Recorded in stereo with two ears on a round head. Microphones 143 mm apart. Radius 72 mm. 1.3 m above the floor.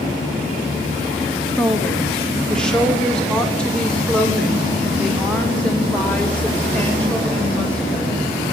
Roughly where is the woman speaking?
Centre.